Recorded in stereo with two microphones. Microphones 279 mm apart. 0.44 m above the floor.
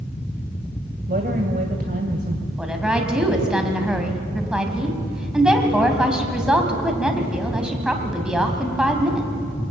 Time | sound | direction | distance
1.1 | a woman speaking | 35° right (ahead or behind) | 1.9 m
2.6 | a woman speaking | 5° right (ahead or behind) | 3.5 m